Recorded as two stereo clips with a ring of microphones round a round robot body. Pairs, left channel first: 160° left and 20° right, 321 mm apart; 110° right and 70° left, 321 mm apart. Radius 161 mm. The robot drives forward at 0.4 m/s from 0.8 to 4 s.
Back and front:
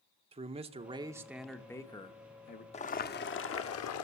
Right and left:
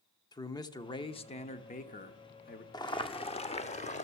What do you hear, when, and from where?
0.3 s a man speaking: 55° right, 0.8 m; by 2.6 s 155° right, 1.0 m
2.7 s boiling: 170° right, 0.7 m; by 4.0 s 175° right, 1.0 m